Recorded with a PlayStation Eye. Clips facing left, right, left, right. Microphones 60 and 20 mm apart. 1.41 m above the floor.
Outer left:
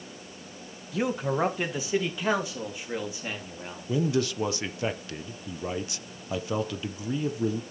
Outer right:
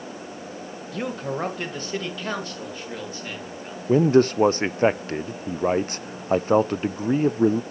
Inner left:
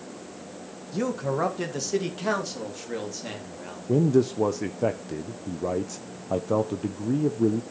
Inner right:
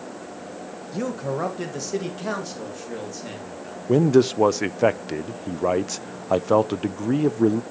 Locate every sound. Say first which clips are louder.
0.9 s a man speaking: outer left 2 dB, even; 5° left (ahead or behind), 1.5 m; by 3.9 s 15° left (ahead or behind), 3.5 m
3.9 s a man speaking: outer right 10 dB, inner right 4 dB; 45° right (ahead or behind), 0.6 m